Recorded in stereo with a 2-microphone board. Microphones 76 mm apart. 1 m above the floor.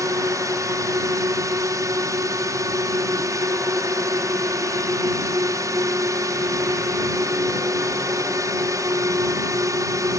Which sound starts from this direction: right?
A drone, at 0.0 s.